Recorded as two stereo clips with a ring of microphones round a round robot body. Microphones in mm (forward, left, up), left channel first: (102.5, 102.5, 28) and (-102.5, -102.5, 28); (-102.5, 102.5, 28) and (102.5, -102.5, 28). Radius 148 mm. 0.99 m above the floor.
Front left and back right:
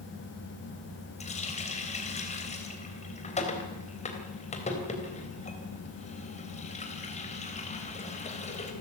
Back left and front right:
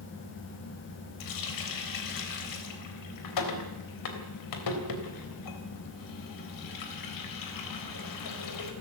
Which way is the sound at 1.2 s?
115° left.